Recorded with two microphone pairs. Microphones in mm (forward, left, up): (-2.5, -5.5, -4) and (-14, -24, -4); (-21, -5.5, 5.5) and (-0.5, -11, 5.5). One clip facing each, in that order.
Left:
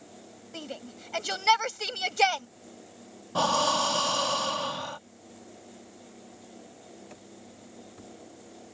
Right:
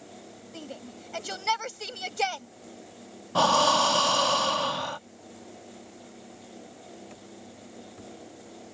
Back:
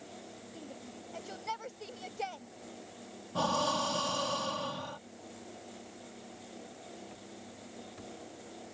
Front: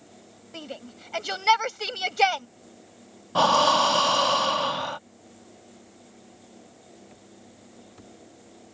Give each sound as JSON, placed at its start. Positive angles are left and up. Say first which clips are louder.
{"t": 0.5, "sound": "a shout", "louder": "left 2 dB, front 12 dB", "azimuth_deg": -5}
{"t": 3.4, "sound": "breathing", "louder": "right 4 dB, front 12 dB", "azimuth_deg": -45}